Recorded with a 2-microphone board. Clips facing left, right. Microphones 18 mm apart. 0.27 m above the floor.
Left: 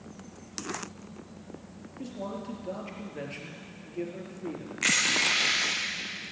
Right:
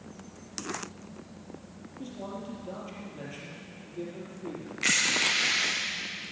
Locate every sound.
2.0 s a man speaking: 65° left (ahead or behind), 4.5 m
4.8 s crushing: 55° left (ahead or behind), 6 m